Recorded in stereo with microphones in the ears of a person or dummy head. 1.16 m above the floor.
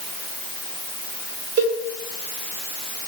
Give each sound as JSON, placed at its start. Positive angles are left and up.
{"t": 1.6, "sound": "a cowbell", "side_deg": -65, "distance_m": 3.0}